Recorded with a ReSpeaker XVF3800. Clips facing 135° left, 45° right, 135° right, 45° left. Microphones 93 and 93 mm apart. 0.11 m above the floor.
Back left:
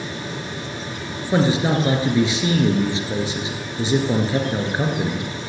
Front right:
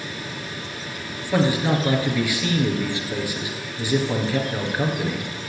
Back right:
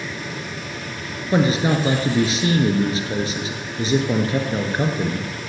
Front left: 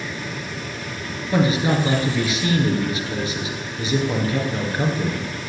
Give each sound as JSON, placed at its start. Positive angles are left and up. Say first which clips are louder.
{"t": 1.3, "sound": "a man speaking", "louder": "back left 2 dB, back right 1 dB", "azimuth_deg": -175, "distance_m": 2.0}